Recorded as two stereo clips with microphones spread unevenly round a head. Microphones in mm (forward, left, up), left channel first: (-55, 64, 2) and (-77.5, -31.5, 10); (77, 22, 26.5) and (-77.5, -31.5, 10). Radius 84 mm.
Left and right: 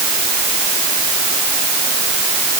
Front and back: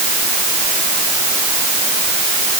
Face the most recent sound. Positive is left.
No sound to turn to.